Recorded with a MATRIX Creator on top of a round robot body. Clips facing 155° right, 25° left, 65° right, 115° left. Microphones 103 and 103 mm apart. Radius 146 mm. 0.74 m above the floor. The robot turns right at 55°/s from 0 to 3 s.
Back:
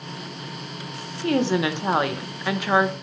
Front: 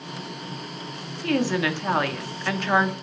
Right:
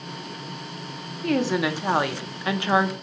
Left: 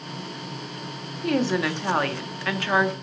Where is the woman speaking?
165° right, 0.7 m; by 2.9 s 75° right, 0.7 m.